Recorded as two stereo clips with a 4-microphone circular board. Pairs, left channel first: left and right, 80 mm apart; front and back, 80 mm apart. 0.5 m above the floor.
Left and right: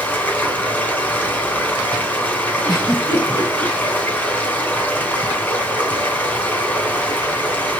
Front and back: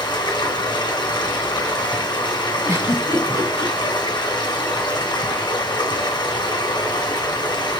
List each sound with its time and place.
0.0 s running water: 25° left, 3 m
2.6 s a giggle: 120° left, 4.5 m